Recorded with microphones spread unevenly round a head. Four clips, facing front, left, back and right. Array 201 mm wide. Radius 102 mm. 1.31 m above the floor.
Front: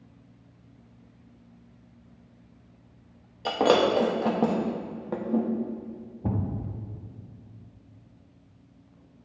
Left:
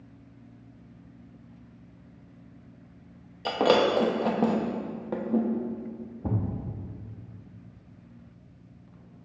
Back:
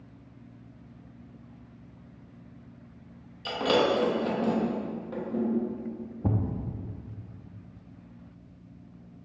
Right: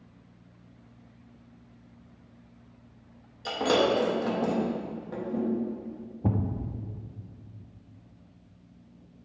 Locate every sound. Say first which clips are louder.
3.5 s breaking glass: left 2 dB, front 3 dB; 45° left, 0.9 m
6.2 s a thud: right 2 dB, even; 135° right, 0.7 m